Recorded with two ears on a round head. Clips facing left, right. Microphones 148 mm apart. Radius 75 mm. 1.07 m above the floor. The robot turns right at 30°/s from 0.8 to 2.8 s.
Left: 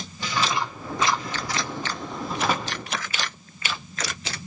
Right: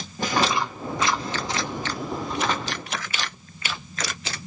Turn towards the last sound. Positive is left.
turn(degrees=15)  # may be behind; listen again after turning